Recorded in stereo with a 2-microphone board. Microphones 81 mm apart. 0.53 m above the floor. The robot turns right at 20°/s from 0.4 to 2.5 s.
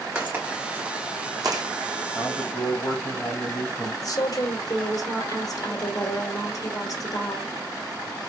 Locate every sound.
0.1 s footsteps: 15° right (ahead or behind), 2 m; by 1.6 s 60° right (ahead or behind), 1.4 m
2.1 s a man speaking: 20° left (ahead or behind), 2 m; by 3.9 s 10° left (ahead or behind), 2 m
4.0 s a woman speaking: 50° left (ahead or behind), 1.7 m